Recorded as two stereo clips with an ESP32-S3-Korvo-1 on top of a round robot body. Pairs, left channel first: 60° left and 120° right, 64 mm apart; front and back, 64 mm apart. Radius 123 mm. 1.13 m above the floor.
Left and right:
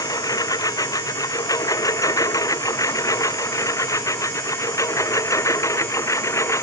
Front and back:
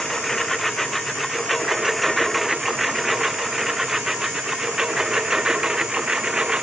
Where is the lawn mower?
90° left; by 6.6 s 105° left.